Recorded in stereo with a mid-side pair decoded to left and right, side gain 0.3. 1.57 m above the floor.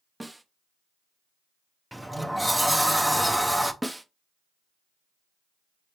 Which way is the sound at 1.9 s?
15° right.